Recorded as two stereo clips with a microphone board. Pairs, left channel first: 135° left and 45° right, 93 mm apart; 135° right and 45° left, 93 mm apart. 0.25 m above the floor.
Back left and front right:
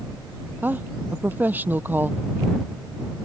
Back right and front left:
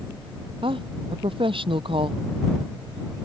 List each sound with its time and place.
0.6 s a woman speaking: 25° left